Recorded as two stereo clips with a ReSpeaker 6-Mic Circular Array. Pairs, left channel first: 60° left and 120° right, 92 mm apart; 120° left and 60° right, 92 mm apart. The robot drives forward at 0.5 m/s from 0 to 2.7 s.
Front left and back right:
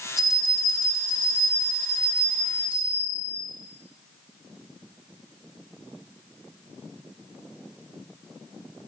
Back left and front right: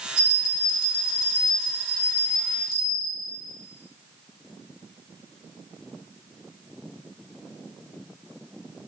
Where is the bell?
155° left, 1.1 m; by 3.3 s 170° left, 2 m.